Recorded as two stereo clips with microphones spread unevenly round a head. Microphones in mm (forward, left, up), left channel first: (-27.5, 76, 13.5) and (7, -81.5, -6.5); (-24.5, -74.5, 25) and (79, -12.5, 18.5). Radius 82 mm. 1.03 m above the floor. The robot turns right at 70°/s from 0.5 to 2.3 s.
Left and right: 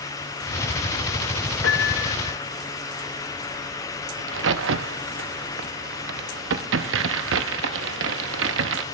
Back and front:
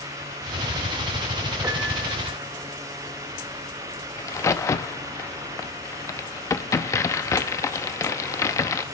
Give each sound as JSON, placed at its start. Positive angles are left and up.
{"t": 1.6, "sound": "a piano", "azimuth_deg": 105, "distance_m": 0.8}
{"t": 4.2, "sound": "a crack", "azimuth_deg": -85, "distance_m": 0.7}